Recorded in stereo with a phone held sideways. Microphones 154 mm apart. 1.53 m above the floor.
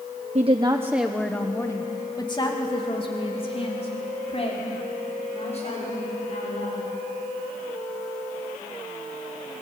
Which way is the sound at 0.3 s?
45° right (ahead or behind).